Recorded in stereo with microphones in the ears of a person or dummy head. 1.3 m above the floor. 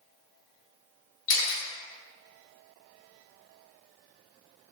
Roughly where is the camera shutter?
Left.